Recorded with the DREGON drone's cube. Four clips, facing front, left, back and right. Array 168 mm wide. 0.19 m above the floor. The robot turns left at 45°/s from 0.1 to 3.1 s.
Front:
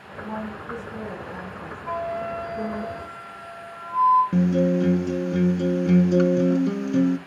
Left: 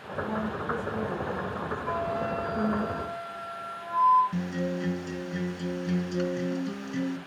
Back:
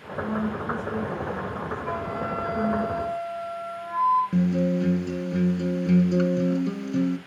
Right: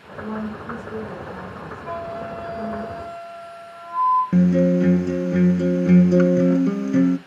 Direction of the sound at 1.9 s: 160° right.